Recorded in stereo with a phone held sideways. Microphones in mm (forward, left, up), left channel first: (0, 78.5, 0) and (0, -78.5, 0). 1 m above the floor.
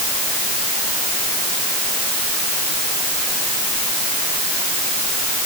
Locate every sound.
Only background noise.